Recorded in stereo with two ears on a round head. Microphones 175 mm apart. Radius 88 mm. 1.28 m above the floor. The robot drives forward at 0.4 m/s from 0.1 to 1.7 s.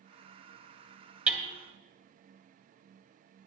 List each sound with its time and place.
1.3 s hammering: 5° right (ahead or behind), 1.5 m